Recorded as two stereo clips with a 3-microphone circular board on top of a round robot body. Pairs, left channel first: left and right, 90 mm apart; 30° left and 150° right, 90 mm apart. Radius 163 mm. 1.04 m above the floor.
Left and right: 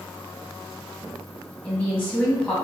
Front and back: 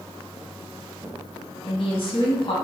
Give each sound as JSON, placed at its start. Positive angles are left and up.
{"t": 1.6, "sound": "a woman speaking", "azimuth_deg": 15, "distance_m": 1.6}